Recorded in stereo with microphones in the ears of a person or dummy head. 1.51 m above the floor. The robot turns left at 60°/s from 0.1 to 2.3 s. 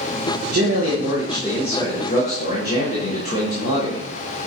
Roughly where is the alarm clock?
No alarm clock in this recording.